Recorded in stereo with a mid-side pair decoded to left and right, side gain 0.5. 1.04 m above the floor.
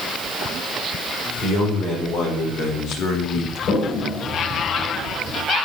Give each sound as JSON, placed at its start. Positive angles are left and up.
{"t": 1.4, "sound": "a man speaking", "azimuth_deg": 60, "distance_m": 5.0}
{"t": 3.7, "sound": "a toilet flushing", "azimuth_deg": 60, "distance_m": 3.5}